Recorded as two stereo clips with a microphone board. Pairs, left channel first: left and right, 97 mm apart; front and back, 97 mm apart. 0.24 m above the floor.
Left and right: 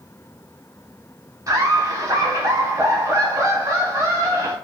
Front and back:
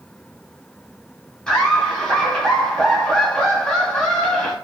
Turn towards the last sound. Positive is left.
turn(degrees=-75)